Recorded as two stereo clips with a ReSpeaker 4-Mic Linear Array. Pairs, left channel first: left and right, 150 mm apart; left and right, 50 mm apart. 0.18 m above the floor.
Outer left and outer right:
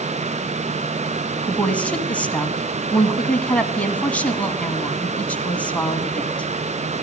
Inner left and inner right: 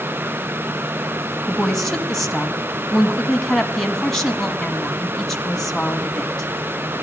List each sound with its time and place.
1.5 s a woman speaking: 10° left (ahead or behind), 1.3 m